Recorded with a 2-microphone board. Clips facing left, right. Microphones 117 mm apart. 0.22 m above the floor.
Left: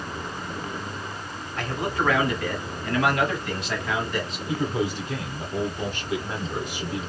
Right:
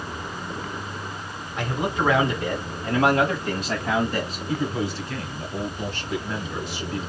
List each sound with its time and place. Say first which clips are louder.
1.6 s a man speaking: right 2 dB; 15° right (ahead or behind), 1.6 m; by 4.4 s 40° right (ahead or behind), 1.2 m
4.5 s a man speaking: left 1 dB; 15° left (ahead or behind), 1.2 m